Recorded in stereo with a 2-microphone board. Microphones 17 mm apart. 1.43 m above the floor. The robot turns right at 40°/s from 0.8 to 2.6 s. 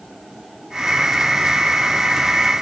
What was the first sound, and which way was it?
Only background noise.